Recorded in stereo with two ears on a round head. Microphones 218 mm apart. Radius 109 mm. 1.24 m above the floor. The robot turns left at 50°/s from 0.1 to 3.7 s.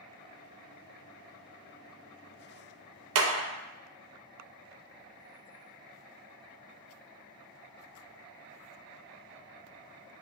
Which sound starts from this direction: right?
A clap, at 3.1 s.